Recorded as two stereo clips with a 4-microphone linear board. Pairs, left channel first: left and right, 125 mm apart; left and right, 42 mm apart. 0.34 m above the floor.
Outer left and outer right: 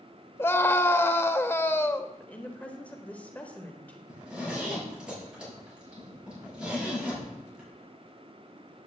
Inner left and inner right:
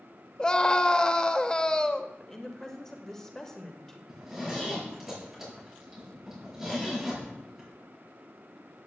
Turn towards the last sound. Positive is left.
turn(degrees=-10)  # may be behind; listen again after turning